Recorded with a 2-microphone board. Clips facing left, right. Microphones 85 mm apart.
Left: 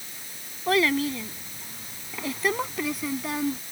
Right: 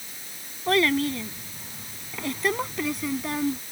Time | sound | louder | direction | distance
0.7 | a child speaking | right 1 dB | centre (ahead or behind) | ?